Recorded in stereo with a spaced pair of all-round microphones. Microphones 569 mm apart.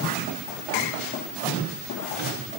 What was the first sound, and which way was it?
Only background noise.